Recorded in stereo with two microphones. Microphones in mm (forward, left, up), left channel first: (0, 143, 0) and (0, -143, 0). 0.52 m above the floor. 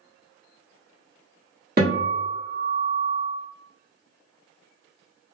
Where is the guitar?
35° right (ahead or behind), 1.5 m.